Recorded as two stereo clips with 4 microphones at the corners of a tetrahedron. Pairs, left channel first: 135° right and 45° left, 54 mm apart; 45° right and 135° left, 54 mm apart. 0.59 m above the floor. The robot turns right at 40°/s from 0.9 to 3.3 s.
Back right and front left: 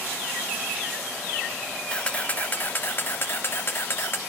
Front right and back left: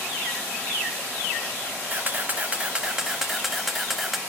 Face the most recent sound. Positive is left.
turn(degrees=-145)